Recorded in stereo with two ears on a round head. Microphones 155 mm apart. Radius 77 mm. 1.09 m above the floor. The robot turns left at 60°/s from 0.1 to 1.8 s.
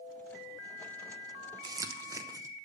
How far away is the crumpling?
About 0.6 m.